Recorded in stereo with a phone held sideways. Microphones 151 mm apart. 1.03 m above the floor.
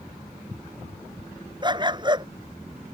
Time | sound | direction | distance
1.6 | a dog barking | 30° right (ahead or behind) | ?